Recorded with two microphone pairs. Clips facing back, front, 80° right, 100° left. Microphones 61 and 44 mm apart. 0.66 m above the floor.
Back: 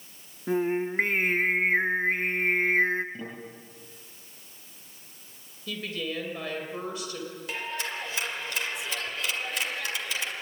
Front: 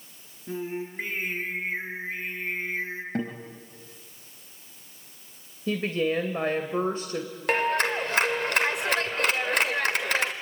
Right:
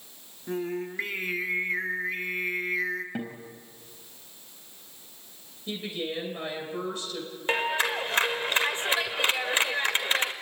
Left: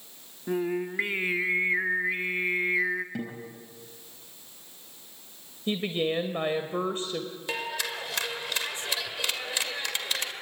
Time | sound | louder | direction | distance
0.5 | singing | back 7 dB, left 3 dB | 175° left | 1.4 m
3.1 | a guitar | front 8 dB, even | 15° right | 5 m
5.7 | a woman speaking | front 8 dB, left 5 dB | 50° left | 2.5 m
7.5 | a clap | front 12 dB, right 7 dB | 25° right | 2 m